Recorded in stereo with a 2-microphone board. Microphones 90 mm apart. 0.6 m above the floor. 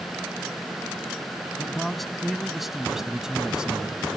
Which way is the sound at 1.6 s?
5° left (ahead or behind).